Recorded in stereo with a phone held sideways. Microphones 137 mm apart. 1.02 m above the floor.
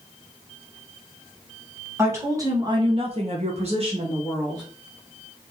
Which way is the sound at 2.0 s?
20° right (ahead or behind).